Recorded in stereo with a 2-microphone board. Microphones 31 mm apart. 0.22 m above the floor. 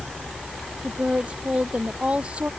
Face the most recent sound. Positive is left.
turn(degrees=-40)  # may be behind; listen again after turning